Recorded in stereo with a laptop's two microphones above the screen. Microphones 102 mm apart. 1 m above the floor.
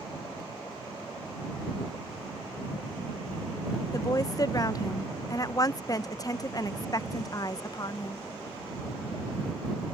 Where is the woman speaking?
35° left (ahead or behind).